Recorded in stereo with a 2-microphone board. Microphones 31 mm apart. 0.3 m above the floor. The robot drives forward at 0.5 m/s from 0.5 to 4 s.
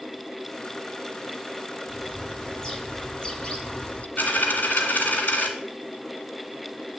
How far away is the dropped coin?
About 1.6 m.